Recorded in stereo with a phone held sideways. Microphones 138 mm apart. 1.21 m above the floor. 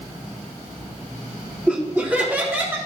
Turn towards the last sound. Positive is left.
turn(degrees=-15)  # may be behind; listen again after turning